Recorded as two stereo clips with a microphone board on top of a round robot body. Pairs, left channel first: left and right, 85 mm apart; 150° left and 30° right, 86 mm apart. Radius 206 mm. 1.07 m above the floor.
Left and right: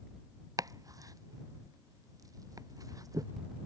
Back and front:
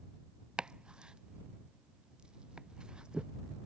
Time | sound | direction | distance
0.6 | chopping | 105° right | ?